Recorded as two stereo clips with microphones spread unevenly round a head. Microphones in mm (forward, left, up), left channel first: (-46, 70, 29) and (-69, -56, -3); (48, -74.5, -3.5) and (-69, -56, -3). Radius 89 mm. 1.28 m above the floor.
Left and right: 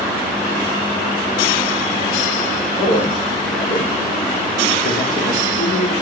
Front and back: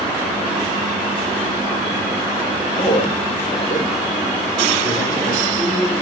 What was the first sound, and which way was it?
A man speaking, 60° left.